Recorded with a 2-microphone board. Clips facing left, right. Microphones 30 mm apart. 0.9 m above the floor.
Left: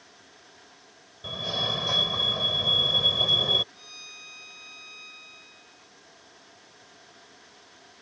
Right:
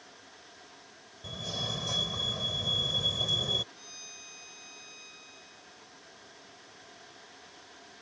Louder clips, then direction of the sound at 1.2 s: Left 7 dB; 35° left (ahead or behind).